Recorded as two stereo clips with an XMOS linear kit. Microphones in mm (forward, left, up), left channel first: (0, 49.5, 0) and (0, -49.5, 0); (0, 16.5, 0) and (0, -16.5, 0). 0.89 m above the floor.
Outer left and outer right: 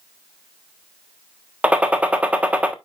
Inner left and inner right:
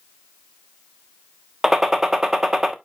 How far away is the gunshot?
About 1.1 m.